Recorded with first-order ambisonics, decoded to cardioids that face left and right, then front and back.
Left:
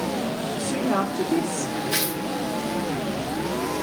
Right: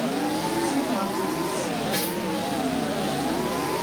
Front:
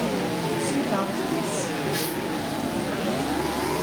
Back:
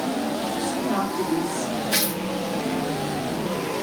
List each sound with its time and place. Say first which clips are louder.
0.6 s a woman speaking: left 1 dB, even; 95° left, 4.5 m
1.9 s tearing paper: left 1 dB, back 3 dB; 145° left, 1.8 m